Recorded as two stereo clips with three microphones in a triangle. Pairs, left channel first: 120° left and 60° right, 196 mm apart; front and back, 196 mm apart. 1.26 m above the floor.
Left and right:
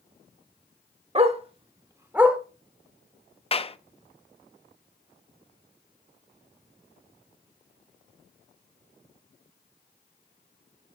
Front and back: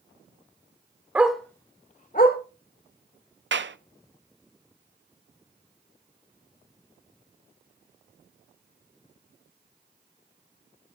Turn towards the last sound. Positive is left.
turn(degrees=180)